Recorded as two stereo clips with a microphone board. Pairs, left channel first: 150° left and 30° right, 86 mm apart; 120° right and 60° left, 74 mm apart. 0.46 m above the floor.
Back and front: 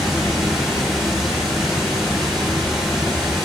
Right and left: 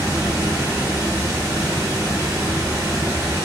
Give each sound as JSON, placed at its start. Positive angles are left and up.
{"t": 0.0, "sound": "running water", "azimuth_deg": 60, "distance_m": 1.1}